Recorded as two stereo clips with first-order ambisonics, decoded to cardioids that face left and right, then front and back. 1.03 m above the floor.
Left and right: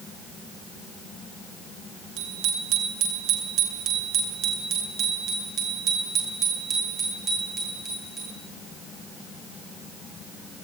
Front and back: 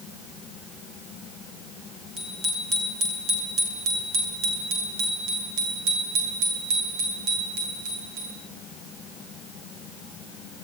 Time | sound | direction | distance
2.2 | a bicycle bell | 120° right | 9 m